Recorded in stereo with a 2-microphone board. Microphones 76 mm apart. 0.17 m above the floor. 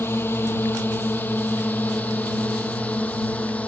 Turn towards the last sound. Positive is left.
turn(degrees=20)  # may be behind; listen again after turning